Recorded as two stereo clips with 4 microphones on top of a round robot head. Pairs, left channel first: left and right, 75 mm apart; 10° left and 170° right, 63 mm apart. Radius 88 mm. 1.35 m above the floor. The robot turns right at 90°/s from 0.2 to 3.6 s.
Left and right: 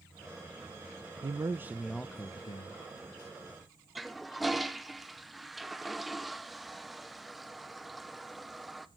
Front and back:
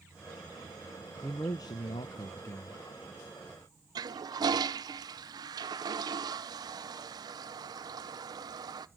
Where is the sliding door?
No sliding door in this recording.